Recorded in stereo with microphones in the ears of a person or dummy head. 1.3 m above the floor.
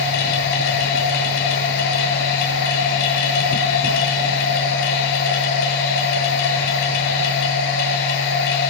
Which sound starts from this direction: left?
A machine running, at 0.0 s.